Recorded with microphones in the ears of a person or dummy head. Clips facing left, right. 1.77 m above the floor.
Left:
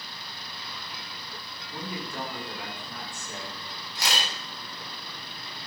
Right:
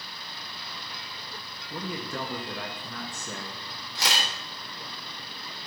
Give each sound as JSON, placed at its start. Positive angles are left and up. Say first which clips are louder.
{"t": 1.7, "sound": "a man speaking", "louder": "right 2 dB", "side_deg": -55, "distance_m": 1.4}
{"t": 4.0, "sound": "a camera shutter", "louder": "right 1 dB", "side_deg": -75, "distance_m": 3.5}